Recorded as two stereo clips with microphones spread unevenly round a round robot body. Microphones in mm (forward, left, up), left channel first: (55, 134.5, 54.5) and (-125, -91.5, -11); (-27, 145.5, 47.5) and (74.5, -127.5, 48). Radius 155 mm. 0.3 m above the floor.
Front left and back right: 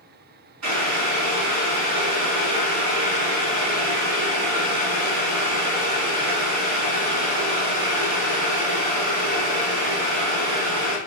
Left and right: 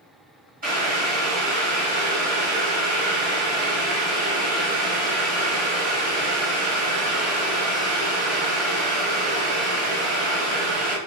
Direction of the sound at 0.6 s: 130° right.